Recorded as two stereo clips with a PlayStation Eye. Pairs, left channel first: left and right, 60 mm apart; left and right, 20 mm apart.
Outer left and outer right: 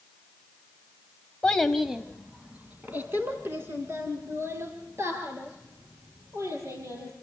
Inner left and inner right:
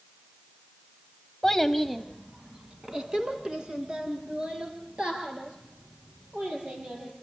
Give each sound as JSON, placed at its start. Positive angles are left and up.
{"t": 1.4, "sound": "a child speaking", "side_deg": 15, "distance_m": 1.1}